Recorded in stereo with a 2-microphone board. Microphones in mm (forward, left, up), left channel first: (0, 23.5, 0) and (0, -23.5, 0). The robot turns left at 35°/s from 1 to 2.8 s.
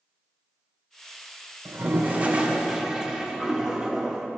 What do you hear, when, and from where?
1.6 s a toilet flushing: 130° right, 0.9 m; by 4.3 s 170° right, 0.9 m